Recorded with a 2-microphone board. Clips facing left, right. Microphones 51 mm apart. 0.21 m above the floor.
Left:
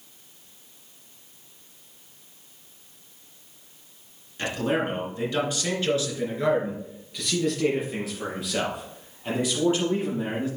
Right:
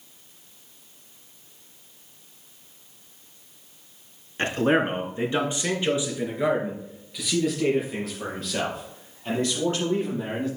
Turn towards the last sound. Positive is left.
turn(degrees=20)  # may be behind; listen again after turning